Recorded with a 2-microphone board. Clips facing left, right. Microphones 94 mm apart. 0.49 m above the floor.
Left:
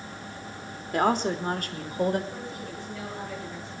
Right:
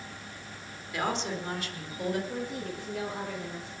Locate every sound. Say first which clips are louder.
0.9 s a woman speaking: left 7 dB; 45° left (ahead or behind), 1.5 m
2.3 s a woman speaking: right 2 dB; 60° right (ahead or behind), 7.5 m